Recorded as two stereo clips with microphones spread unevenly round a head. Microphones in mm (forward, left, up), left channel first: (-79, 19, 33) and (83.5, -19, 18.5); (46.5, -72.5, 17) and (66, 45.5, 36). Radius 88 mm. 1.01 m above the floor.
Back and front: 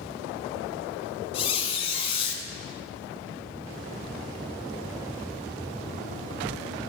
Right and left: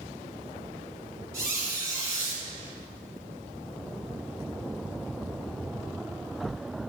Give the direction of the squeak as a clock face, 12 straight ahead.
8 o'clock.